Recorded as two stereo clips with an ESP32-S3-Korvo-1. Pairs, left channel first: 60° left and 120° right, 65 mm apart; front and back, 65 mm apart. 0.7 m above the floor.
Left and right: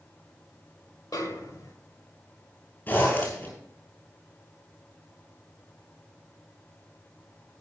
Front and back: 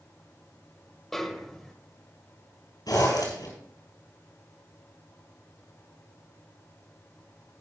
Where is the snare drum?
85° left, 1.4 m.